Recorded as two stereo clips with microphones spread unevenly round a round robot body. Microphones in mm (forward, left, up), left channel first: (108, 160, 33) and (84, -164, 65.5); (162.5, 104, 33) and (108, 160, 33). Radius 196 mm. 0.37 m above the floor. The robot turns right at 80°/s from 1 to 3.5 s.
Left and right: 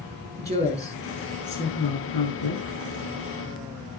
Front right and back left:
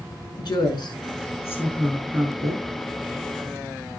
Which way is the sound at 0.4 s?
25° right.